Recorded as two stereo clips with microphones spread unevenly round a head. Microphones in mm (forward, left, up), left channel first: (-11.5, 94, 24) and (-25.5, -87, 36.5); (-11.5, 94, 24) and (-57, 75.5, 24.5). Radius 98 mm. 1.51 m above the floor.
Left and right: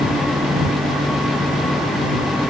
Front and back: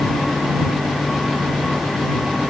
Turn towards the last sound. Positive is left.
No sound to turn to.